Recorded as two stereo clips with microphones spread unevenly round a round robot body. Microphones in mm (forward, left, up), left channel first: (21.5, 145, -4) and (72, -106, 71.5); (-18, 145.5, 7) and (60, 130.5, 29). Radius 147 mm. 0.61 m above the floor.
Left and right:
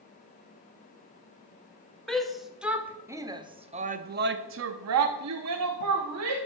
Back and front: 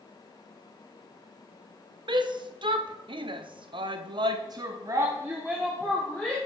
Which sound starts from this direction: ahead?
A shout, at 2.1 s.